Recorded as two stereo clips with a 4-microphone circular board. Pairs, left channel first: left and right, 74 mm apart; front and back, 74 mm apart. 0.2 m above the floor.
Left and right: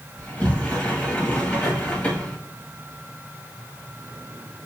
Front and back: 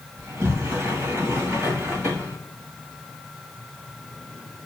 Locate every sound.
0.2 s a sliding door: 145° left, 2 m